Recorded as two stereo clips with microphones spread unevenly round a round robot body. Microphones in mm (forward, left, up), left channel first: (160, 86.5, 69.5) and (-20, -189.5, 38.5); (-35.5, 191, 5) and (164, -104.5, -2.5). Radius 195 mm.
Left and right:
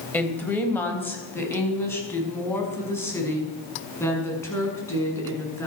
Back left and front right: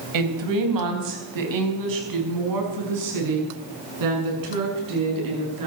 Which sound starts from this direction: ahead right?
A woman speaking, at 0.1 s.